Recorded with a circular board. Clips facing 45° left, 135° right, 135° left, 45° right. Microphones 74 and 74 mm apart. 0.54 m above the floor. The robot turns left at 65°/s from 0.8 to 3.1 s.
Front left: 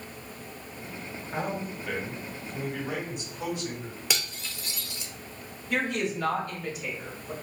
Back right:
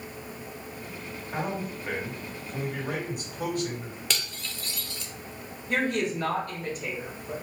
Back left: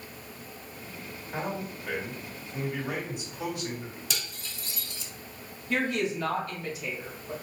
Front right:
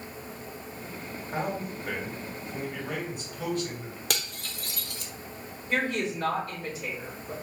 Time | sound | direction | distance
1.3 | a man speaking | 45° right | 1.8 m
4.1 | cutlery clinking | 35° right | 0.8 m
5.7 | a woman speaking | 100° right | 2.5 m